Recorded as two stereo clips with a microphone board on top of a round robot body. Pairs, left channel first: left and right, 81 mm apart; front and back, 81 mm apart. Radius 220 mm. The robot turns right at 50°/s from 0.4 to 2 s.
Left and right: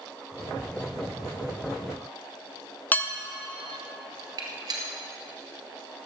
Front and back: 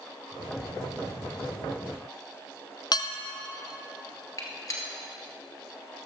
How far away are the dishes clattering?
About 0.9 m.